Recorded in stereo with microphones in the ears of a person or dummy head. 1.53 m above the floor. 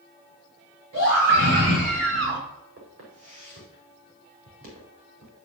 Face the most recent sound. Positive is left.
turn(degrees=-80)